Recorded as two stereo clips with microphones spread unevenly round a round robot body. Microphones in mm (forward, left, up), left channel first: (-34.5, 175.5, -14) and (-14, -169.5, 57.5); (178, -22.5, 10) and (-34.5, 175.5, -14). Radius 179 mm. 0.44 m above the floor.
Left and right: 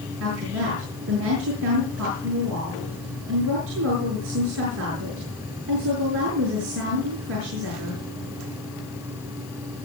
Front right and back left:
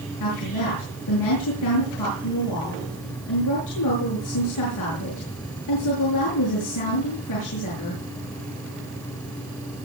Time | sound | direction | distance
0.2 | a woman speaking | 30° right | 8 m